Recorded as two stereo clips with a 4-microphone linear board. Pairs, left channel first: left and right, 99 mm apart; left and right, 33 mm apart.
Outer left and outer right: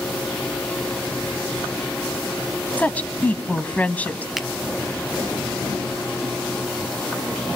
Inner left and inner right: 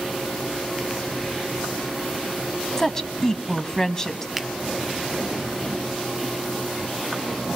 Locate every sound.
2.8 s a woman speaking: 15° left (ahead or behind), 1.0 m
4.4 s a finger snap: centre (ahead or behind), 0.9 m